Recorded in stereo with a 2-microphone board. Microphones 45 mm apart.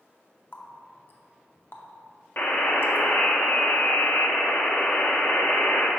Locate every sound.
0.5 s a running tap: 50° left (ahead or behind), 0.7 m
2.4 s a buzzer: 45° left (ahead or behind), 0.9 m